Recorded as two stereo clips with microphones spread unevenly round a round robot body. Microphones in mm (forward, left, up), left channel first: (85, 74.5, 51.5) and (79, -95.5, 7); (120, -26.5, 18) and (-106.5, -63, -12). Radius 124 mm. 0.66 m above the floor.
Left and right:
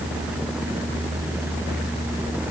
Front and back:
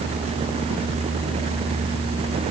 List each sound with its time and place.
Only background noise.